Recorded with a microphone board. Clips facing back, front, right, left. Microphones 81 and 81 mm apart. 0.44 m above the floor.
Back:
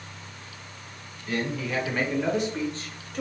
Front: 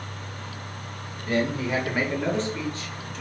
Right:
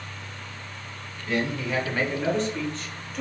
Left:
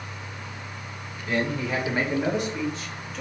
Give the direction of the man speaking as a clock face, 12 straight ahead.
11 o'clock.